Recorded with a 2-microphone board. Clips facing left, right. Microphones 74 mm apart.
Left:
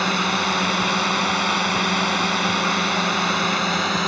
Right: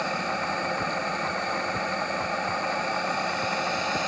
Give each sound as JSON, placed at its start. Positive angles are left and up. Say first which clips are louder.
{"t": 0.0, "sound": "a drone", "louder": "left 6 dB", "side_deg": 75}